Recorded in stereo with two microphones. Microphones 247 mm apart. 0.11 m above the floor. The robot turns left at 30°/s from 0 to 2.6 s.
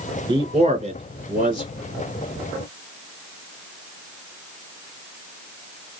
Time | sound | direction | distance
0.3 | a man speaking | 20° right (ahead or behind) | 1.7 m